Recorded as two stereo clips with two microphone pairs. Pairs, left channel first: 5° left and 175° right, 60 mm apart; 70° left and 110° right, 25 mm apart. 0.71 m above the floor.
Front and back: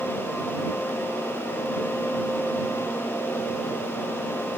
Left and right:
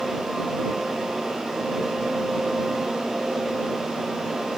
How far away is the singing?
I don't hear singing.